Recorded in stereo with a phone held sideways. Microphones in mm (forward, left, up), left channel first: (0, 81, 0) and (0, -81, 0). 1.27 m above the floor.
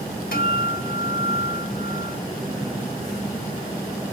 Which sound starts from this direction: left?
A guitar, at 0.3 s.